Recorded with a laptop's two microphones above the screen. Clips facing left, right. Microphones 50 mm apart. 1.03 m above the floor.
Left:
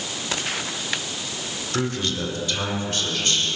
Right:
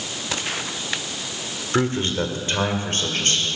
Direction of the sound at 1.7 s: 30° right (ahead or behind).